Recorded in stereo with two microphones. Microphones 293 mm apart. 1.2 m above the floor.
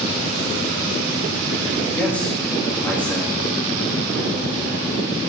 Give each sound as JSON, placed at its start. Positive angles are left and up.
{"t": 1.9, "sound": "a man speaking", "side_deg": 5, "distance_m": 1.8}